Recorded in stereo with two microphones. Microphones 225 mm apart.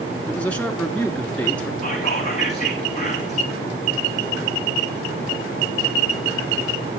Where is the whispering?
30° left (ahead or behind), 7 m.